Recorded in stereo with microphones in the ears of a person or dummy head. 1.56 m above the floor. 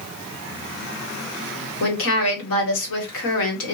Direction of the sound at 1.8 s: 75° left (ahead or behind).